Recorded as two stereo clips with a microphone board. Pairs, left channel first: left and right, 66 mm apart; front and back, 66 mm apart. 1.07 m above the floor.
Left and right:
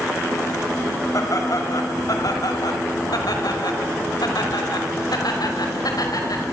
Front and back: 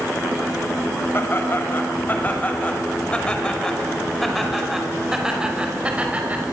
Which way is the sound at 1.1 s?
55° left.